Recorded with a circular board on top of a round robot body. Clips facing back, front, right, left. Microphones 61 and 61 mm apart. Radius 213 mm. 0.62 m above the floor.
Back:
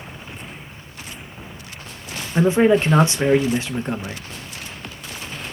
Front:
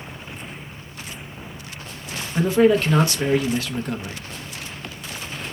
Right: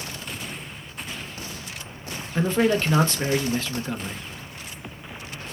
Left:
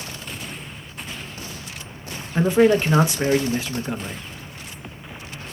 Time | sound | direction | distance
2.4 | a man speaking | 150° left | 0.7 m